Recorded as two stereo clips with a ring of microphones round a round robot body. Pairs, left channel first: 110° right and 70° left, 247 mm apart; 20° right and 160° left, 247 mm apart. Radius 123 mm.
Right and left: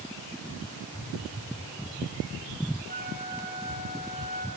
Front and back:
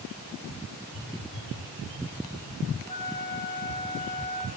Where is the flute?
95° right, 3.5 m.